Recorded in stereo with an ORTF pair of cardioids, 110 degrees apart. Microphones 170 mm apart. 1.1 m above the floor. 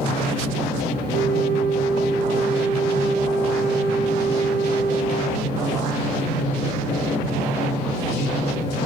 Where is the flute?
65° right, 0.8 m.